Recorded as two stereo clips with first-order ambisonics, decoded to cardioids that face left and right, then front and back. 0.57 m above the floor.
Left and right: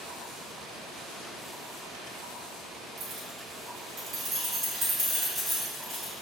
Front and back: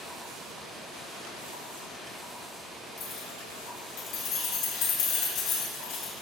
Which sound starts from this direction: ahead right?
Keys jangling, at 3.0 s.